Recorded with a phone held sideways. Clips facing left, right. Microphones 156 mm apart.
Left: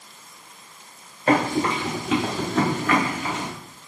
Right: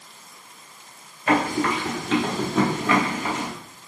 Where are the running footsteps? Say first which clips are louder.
Left 1 dB; 35° left (ahead or behind), 1.5 m; by 3.5 s 40° right (ahead or behind), 1.6 m.